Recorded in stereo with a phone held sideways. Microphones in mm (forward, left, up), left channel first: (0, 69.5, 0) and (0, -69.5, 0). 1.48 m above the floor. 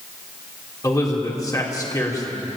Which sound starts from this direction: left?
A man speaking, at 0.8 s.